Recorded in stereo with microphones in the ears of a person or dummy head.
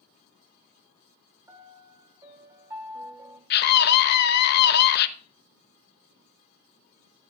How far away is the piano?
About 1.5 m.